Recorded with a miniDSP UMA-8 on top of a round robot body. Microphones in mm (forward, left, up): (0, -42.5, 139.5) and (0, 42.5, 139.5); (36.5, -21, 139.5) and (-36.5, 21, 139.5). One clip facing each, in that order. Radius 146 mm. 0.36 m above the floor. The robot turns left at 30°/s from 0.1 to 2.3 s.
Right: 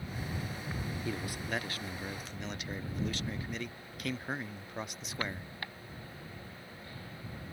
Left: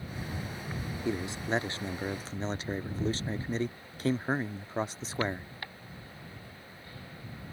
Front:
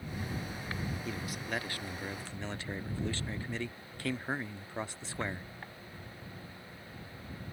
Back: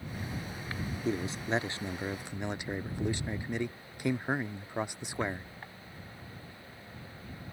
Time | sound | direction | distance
1.1 | a man speaking | 135° left | ?